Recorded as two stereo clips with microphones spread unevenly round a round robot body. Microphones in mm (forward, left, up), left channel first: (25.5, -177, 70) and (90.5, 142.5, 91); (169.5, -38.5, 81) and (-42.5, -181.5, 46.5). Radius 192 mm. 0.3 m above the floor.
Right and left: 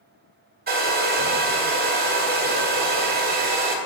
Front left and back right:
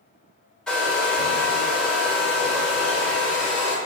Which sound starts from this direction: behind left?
A hair dryer, at 0.7 s.